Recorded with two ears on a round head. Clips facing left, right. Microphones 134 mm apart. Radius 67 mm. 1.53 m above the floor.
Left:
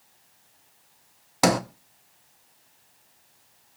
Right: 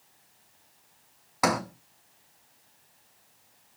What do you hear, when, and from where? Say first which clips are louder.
1.4 s a sliding door: left 5 dB; 35° left (ahead or behind), 1.0 m